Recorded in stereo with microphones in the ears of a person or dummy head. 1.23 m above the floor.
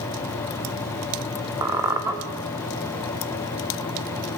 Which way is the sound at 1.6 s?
15° right (ahead or behind).